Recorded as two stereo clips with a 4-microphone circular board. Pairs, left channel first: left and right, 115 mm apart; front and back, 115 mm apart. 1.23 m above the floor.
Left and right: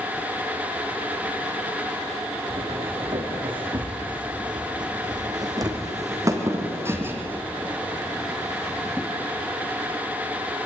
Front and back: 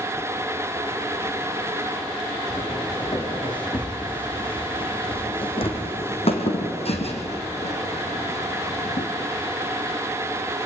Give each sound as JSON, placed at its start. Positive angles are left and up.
{"t": 2.5, "sound": "footsteps", "azimuth_deg": -50, "distance_m": 6.0}